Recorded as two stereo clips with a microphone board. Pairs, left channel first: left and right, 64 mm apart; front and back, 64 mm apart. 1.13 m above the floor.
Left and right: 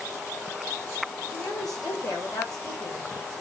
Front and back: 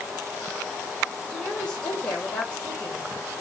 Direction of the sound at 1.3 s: 70° left.